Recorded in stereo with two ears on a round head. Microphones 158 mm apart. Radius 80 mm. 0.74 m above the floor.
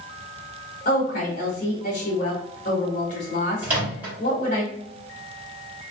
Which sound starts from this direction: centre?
A microwave, at 3.6 s.